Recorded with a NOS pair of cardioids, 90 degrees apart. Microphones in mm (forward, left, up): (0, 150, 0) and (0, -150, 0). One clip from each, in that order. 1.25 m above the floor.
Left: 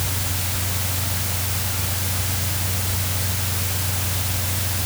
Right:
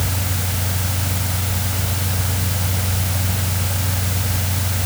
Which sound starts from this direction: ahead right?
A fan, at 0.0 s.